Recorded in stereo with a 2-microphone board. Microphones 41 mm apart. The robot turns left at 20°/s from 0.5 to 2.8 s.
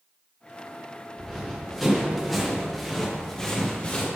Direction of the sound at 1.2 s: 5° left (ahead or behind).